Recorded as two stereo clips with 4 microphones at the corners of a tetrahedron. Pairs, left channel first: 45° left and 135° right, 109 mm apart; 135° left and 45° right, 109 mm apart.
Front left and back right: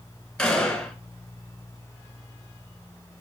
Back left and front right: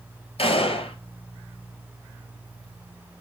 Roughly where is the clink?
I don't hear a clink.